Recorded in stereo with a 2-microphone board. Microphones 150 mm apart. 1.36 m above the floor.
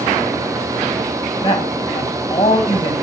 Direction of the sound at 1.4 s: 30° left (ahead or behind).